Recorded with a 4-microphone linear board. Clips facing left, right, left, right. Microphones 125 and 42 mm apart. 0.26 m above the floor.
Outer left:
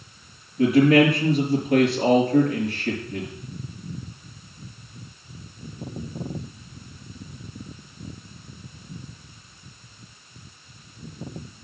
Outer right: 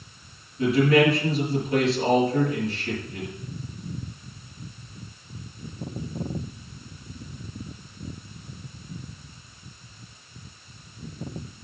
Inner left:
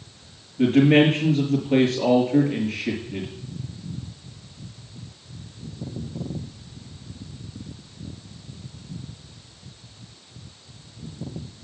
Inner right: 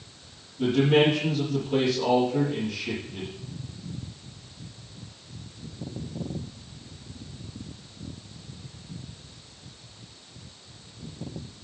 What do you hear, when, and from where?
0.6 s a man speaking: 55° left (ahead or behind), 5 m